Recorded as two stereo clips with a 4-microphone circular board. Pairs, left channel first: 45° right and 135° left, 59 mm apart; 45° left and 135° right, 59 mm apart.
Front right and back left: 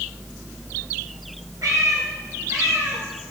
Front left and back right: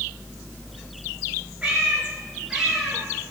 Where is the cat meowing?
155° left, 8 m; by 3.3 s 135° left, 7.5 m.